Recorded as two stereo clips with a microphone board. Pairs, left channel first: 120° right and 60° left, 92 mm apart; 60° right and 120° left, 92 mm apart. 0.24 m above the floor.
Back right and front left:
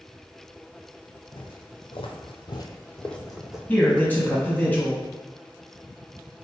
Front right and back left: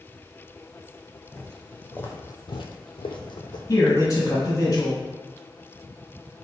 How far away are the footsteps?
About 1.0 m.